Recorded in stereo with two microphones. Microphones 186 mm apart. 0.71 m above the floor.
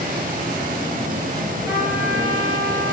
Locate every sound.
1.7 s a trumpet: 15° right (ahead or behind), 4.5 m